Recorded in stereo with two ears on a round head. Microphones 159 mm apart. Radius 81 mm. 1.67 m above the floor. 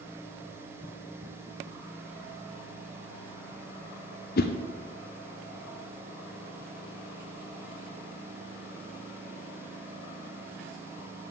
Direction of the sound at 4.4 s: 55° left (ahead or behind).